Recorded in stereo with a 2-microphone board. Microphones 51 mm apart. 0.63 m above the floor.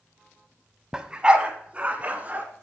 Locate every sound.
0.9 s a dog barking: 15° right (ahead or behind), 0.9 m; by 2.4 s 30° right (ahead or behind), 2 m